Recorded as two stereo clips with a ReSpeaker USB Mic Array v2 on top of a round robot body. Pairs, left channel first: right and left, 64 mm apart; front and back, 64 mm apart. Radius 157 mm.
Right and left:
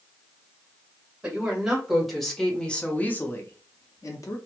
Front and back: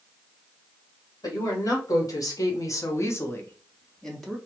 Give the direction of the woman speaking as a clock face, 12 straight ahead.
12 o'clock.